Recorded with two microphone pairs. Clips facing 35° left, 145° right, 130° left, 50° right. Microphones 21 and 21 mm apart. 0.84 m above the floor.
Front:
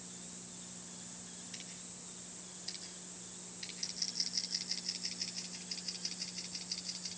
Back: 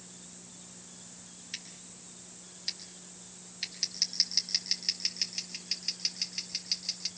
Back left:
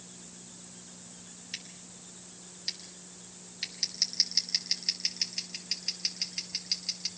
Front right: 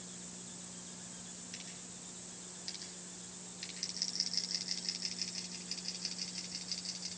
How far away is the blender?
No blender in this recording.